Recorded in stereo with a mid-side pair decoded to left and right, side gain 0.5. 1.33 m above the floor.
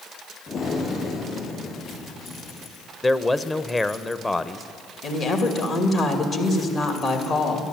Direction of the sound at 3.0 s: 15° left.